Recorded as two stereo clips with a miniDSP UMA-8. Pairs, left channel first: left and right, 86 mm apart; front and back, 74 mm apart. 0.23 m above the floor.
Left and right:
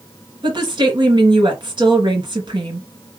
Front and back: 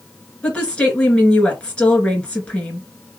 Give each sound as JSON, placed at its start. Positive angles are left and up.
{"t": 0.4, "sound": "a woman speaking", "azimuth_deg": -75, "distance_m": 2.5}